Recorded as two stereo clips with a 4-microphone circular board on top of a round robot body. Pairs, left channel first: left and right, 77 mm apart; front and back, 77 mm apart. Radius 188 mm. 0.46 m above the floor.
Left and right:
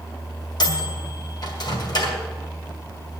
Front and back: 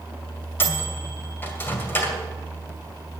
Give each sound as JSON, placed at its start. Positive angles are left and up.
{"t": 0.6, "sound": "a microwave", "azimuth_deg": 65, "distance_m": 2.5}